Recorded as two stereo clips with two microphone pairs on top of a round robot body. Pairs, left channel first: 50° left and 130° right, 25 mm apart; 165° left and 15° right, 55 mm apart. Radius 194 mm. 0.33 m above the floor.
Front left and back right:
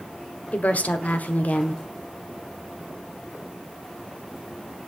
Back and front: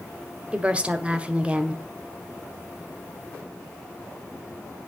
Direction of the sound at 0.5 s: 50° left.